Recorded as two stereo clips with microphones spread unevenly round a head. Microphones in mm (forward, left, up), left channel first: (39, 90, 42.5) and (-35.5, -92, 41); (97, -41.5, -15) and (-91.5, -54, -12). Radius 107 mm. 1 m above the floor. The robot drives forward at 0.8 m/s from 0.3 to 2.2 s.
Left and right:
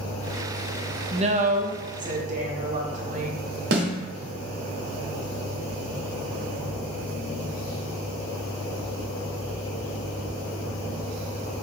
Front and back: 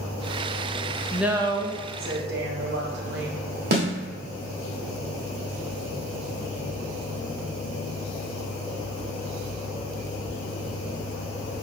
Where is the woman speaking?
80° right, 0.7 m; by 3.4 s 155° right, 1.0 m.